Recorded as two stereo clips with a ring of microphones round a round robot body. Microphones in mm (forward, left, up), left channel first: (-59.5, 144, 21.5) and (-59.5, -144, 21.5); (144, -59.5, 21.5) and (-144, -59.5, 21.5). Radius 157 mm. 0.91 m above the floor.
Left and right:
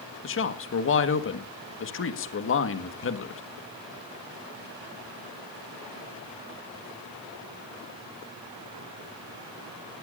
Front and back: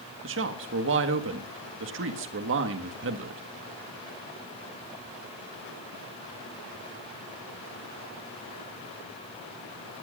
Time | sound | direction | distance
0.2 | a man speaking | 130° left | 1.6 m